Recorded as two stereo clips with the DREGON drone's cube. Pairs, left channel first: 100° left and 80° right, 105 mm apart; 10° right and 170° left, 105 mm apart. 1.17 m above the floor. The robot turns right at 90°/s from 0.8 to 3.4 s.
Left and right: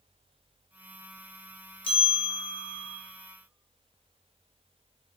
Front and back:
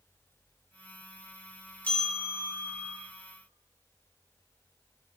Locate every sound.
1.8 s a bell: 60° left, 0.6 m; by 3.0 s 165° left, 0.6 m